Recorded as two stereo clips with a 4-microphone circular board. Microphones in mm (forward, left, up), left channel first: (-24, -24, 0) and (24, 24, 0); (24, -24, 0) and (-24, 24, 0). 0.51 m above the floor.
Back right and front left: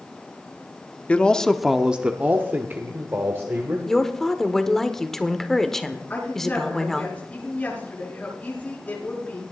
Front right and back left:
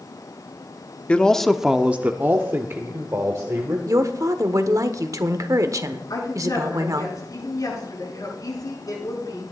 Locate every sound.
1.1 s a man speaking: 90° right, 0.7 m; by 3.8 s 95° left, 1.7 m
3.9 s a woman speaking: 140° left, 1.1 m
6.1 s a woman speaking: 70° right, 8 m